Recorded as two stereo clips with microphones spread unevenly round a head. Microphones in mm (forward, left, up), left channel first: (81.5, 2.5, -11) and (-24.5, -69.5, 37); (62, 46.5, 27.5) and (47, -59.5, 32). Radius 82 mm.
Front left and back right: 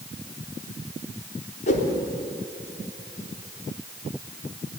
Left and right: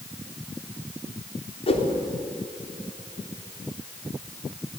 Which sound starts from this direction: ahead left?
A whoosh, at 1.7 s.